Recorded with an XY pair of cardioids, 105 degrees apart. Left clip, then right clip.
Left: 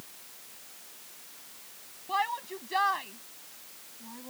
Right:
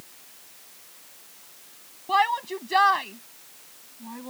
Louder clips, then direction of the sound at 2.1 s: Right 8 dB; 50° right.